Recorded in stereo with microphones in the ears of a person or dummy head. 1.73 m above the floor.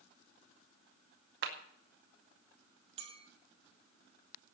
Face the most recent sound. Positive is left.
turn(degrees=-35)  # may be behind; listen again after turning